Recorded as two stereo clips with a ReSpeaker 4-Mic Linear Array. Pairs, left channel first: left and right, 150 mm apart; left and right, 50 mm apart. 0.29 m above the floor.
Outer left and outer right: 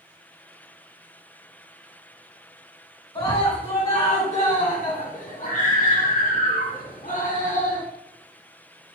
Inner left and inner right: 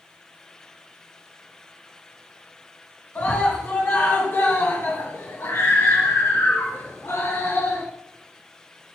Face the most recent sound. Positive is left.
turn(degrees=55)  # may be behind; listen again after turning